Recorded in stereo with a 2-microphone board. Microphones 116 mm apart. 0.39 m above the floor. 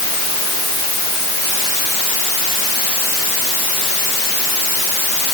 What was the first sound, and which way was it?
Only background noise.